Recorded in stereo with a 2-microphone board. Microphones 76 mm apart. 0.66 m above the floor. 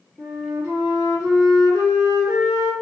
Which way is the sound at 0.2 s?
35° right (ahead or behind).